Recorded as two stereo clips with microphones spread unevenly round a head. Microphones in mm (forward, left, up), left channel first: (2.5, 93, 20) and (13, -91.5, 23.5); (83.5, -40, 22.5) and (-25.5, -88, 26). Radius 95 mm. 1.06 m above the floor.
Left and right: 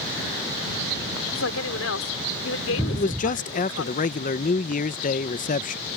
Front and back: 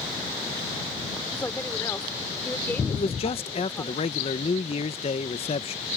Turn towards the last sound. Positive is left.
turn(degrees=55)